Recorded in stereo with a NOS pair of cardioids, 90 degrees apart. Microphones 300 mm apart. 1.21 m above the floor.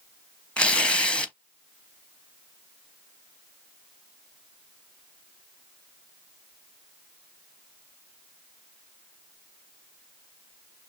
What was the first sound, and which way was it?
Tearing paper, 5° left.